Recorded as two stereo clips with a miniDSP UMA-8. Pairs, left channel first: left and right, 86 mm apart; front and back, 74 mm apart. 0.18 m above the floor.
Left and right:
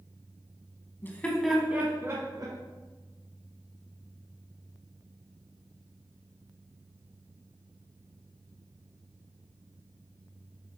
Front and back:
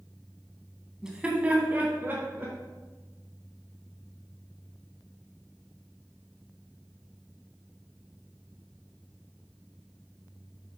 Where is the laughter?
110° left, 1.5 m; by 2.5 s 125° right, 2.5 m.